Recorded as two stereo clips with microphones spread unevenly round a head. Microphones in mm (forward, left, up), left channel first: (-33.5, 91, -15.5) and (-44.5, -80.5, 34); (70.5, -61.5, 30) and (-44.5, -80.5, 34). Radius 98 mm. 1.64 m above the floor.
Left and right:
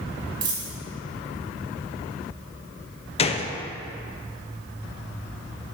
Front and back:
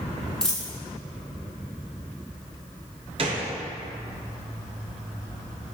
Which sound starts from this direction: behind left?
A gunshot, at 3.2 s.